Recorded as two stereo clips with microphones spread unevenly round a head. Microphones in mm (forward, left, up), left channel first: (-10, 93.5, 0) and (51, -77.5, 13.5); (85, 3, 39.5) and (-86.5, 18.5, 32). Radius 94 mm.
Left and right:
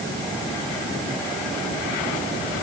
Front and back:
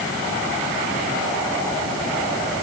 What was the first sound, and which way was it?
Only background noise.